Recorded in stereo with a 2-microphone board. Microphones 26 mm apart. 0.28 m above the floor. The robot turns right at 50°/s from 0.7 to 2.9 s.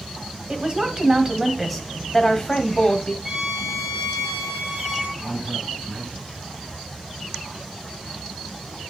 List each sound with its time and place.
0.5 s a woman speaking: 55° right, 1.4 m; by 3.1 s 55° left, 1.4 m
3.2 s a violin: 30° right (ahead or behind), 3.5 m
5.2 s a man speaking: 20° right (ahead or behind), 5.5 m